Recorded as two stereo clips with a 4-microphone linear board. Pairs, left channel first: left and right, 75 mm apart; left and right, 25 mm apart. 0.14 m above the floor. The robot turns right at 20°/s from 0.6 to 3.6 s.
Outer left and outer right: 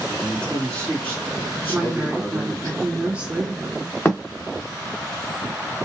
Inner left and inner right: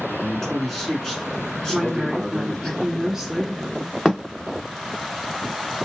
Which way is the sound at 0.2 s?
25° left.